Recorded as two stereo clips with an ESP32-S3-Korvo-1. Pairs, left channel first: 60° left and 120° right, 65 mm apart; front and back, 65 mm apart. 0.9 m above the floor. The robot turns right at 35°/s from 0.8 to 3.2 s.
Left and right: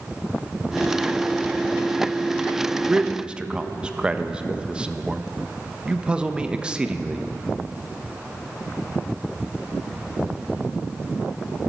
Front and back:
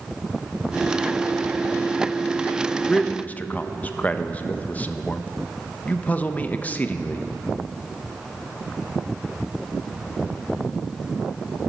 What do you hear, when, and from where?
2.9 s a man speaking: 65° right, 0.6 m; by 7.2 s 55° right, 0.6 m